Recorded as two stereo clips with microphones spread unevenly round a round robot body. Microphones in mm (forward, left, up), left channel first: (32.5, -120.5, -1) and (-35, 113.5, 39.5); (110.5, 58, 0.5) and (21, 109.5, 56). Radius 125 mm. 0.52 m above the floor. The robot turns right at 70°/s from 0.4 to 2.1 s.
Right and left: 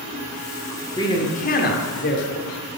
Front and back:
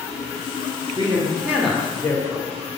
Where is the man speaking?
140° right, 1.1 m; by 2.5 s 60° right, 1.1 m.